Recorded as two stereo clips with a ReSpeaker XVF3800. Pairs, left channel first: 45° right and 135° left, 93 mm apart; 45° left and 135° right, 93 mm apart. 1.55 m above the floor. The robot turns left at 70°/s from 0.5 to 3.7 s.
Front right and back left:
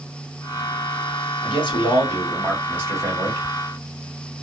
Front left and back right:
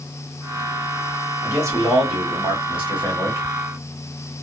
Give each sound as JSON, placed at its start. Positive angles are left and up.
{"t": 1.4, "sound": "a man speaking", "azimuth_deg": -60, "distance_m": 1.4}